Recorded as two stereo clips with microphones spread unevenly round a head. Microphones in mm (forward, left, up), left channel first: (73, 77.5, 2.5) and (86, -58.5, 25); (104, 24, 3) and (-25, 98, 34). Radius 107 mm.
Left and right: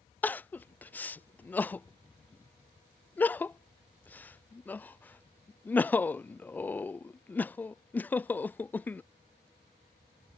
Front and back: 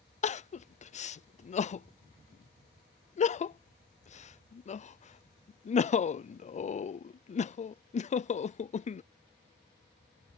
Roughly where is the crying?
Ahead.